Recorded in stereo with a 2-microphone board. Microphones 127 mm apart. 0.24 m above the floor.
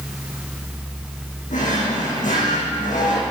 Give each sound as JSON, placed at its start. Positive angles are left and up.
{"t": 1.5, "sound": "a drawer", "side_deg": 85, "distance_m": 6.0}